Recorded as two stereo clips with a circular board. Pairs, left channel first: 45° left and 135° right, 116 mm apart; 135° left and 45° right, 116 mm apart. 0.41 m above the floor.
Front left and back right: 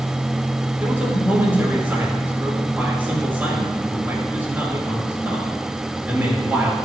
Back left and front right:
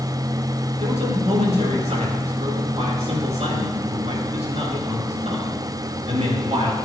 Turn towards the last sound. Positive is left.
turn(degrees=-60)